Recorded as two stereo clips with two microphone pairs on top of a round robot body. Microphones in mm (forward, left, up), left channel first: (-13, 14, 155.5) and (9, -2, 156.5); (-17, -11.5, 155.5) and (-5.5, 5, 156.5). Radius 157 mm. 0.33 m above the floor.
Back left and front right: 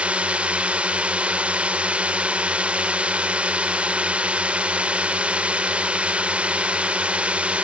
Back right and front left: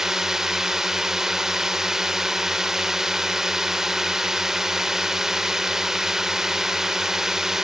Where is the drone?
5° right.